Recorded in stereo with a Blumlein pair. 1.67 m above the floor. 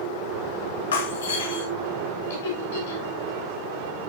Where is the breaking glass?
65° left, 2.5 m.